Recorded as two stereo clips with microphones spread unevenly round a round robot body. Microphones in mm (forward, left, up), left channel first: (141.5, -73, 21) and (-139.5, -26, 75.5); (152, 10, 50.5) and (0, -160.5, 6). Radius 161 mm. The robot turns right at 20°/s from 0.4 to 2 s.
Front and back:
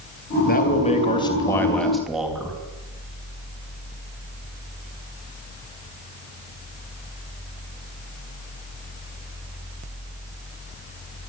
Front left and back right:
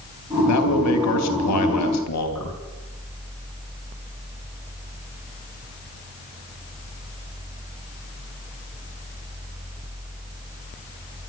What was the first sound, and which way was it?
A man speaking, 45° left.